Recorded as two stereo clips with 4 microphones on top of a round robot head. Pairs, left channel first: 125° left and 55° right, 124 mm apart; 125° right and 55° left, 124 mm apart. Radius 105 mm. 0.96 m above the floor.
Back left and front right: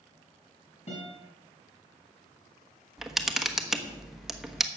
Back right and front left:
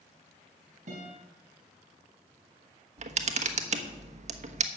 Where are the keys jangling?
No keys jangling in this recording.